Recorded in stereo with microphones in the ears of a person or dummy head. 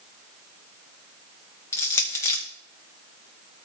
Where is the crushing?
15° left (ahead or behind), 1.1 m.